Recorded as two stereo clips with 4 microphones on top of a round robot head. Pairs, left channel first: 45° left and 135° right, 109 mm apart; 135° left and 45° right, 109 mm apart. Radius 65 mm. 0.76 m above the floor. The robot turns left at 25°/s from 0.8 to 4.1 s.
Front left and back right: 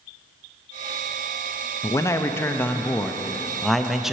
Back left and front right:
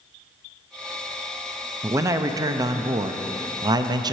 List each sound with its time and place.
1.8 s a man speaking: 5° left, 0.5 m; by 4.1 s 55° right, 0.5 m